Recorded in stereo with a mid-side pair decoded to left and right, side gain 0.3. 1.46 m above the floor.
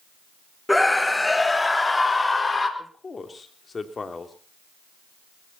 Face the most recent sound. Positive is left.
turn(degrees=45)